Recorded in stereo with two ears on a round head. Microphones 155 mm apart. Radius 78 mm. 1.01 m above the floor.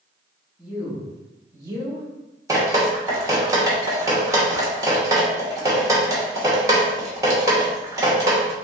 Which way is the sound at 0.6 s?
Centre (ahead or behind).